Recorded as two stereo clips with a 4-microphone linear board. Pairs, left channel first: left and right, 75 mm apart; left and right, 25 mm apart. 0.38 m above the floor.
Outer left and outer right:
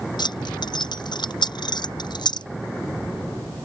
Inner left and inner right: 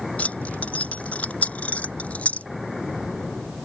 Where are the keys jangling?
80° left; by 2.5 s 75° left (ahead or behind).